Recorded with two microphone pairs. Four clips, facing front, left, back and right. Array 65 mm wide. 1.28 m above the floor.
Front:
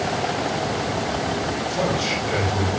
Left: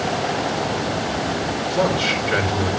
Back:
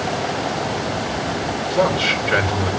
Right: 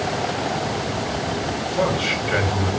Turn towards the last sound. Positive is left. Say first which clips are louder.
# left 2 dB, back 7 dB
turn(degrees=165)